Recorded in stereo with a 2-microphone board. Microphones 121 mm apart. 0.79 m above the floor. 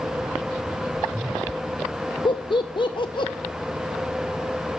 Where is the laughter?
45° left (ahead or behind), 0.6 m.